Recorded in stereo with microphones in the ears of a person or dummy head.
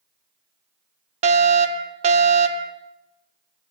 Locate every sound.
1.2 s a fire alarm: 30° right (ahead or behind), 1.2 m